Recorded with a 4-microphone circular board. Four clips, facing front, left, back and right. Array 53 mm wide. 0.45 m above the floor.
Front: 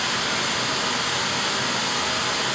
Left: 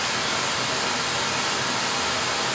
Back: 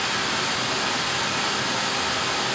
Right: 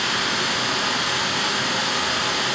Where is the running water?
80° right, 0.8 m.